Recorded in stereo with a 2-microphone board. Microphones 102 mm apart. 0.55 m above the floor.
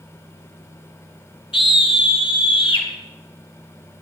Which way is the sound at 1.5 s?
60° left (ahead or behind).